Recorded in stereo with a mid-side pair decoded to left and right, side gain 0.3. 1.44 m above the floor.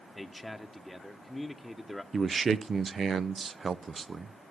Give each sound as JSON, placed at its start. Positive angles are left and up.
{"t": 0.1, "sound": "a man speaking", "azimuth_deg": 5, "distance_m": 1.3}
{"t": 2.1, "sound": "a man speaking", "azimuth_deg": -55, "distance_m": 0.7}